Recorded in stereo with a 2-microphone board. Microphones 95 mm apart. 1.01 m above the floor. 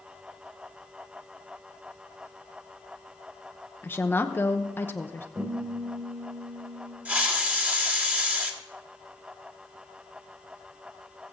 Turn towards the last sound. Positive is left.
turn(degrees=-15)  # may be behind; listen again after turning